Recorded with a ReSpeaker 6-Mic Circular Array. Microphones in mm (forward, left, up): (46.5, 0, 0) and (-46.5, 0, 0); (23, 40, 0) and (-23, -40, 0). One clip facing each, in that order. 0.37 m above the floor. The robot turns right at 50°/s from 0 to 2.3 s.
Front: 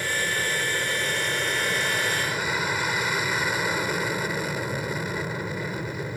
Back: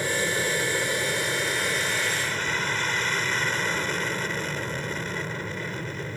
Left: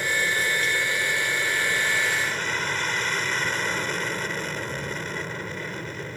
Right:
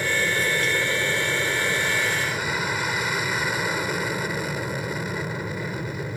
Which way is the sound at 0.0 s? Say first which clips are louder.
Back 1 dB, right 1 dB; 175° right.